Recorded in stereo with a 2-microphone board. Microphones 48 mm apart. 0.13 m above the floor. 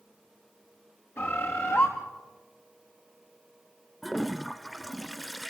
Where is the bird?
50° left (ahead or behind), 3.5 m.